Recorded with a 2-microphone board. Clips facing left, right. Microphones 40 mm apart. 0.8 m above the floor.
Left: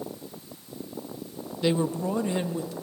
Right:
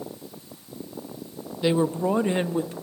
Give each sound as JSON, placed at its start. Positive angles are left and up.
{"t": 1.6, "sound": "a woman speaking", "side_deg": -10, "distance_m": 0.6}